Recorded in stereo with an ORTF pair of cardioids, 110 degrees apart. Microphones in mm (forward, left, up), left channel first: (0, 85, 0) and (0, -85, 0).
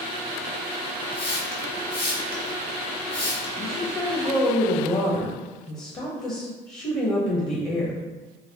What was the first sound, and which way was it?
A hiss, 30° left.